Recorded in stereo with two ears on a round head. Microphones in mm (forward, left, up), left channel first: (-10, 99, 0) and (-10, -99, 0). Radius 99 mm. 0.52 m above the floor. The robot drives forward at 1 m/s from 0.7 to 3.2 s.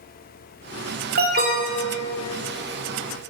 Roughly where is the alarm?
Right.